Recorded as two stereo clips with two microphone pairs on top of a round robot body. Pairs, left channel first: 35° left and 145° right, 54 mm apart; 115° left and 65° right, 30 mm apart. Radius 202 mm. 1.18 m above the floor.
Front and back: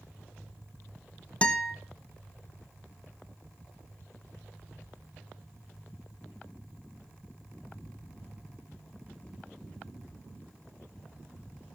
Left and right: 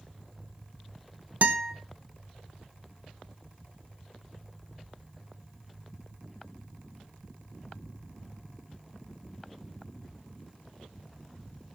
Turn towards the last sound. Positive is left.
turn(degrees=-35)